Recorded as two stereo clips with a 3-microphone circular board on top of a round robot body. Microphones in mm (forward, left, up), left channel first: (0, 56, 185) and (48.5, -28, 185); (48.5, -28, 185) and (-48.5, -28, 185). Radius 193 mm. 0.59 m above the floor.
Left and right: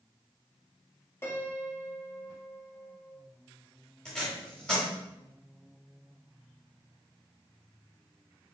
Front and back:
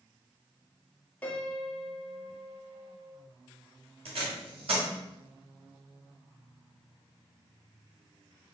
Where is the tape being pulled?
155° right, 1.0 m.